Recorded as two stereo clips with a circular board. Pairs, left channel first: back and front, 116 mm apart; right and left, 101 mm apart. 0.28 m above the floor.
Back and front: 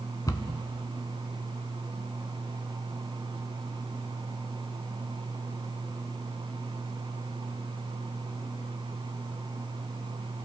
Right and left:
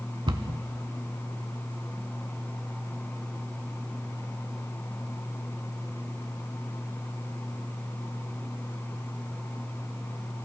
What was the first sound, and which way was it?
A cupboard door, 125° left.